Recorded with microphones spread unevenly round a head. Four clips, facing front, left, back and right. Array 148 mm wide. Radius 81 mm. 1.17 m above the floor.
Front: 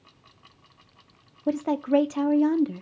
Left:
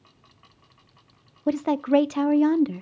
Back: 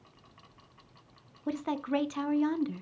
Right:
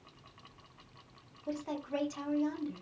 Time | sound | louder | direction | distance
1.5 | a woman speaking | left 16 dB, front 8 dB | 75° left | 0.9 m